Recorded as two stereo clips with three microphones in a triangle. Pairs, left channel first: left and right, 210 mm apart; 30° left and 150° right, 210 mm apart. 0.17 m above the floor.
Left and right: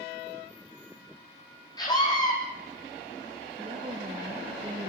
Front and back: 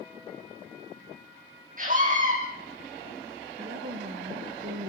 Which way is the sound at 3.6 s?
150° right.